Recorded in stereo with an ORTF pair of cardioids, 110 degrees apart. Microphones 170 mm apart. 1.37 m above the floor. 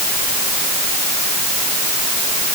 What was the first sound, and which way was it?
Only background noise.